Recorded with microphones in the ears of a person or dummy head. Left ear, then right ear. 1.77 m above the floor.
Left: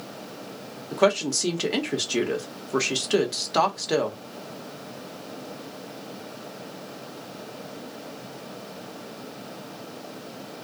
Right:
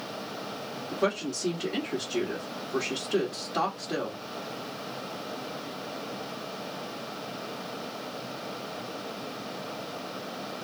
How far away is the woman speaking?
About 1.0 m.